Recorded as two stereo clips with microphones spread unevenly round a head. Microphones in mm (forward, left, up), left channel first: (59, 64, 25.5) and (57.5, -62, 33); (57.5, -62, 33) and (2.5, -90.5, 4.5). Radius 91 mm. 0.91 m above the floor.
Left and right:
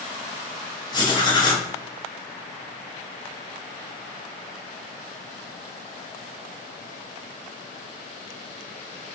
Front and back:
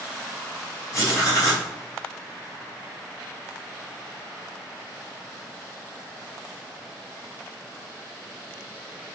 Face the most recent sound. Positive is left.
turn(degrees=85)